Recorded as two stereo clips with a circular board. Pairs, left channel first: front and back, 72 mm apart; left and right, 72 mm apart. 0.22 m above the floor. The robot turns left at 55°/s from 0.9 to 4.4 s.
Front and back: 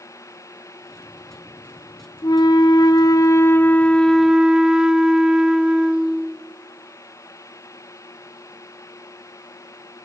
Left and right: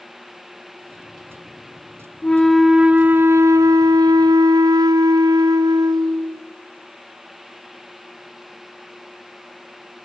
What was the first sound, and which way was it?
A flute, 20° left.